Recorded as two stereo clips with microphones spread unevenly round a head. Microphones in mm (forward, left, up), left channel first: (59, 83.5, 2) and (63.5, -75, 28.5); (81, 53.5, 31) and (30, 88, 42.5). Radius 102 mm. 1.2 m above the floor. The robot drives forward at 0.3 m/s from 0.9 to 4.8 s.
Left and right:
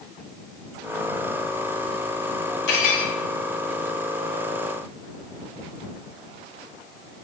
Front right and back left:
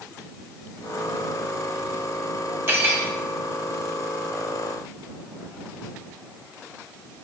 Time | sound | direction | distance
2.7 | cutlery clinking | 95° left | 1.9 m